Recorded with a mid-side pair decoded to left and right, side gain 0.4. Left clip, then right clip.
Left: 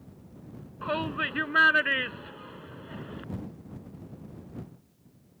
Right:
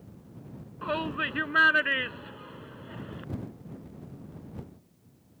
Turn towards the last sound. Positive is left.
turn(degrees=10)